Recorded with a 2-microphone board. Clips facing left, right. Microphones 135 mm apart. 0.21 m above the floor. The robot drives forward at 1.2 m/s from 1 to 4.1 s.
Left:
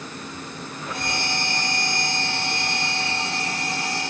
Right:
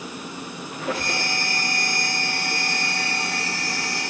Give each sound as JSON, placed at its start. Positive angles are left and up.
{"t": 0.7, "sound": "a squeak", "side_deg": -85, "distance_m": 3.5}